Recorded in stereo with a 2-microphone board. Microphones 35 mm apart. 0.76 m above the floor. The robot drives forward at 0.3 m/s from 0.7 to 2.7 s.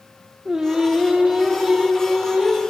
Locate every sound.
0.5 s singing: 15° right (ahead or behind), 0.9 m; by 2.6 s 10° right (ahead or behind), 1.4 m